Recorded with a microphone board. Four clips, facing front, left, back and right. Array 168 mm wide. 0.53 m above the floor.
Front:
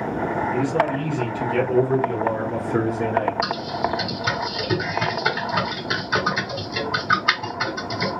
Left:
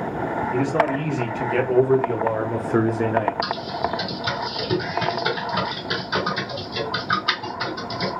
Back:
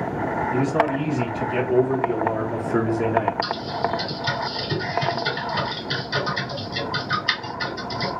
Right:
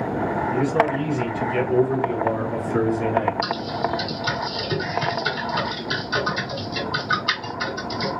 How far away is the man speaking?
About 2.5 m.